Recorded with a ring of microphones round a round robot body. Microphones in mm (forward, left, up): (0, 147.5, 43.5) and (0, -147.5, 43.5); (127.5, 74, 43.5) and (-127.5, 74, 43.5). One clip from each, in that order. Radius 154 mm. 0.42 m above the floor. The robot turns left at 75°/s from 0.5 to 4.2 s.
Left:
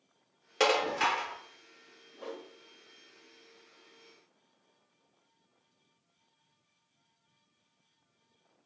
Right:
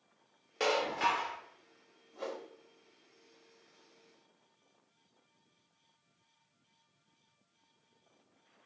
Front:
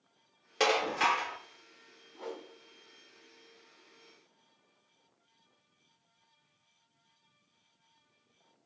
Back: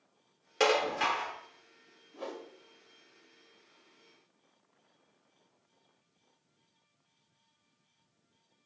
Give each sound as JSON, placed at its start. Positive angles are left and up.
{"t": 0.6, "sound": "dishes clattering", "azimuth_deg": 85, "distance_m": 0.5}
{"t": 2.1, "sound": "a whoosh", "azimuth_deg": -140, "distance_m": 1.2}